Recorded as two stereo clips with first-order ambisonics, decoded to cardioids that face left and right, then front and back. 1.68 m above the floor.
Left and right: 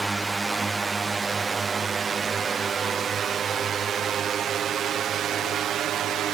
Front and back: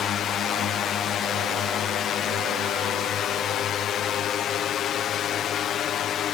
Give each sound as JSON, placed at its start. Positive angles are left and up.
{"t": 0.0, "sound": "a drone", "azimuth_deg": -15}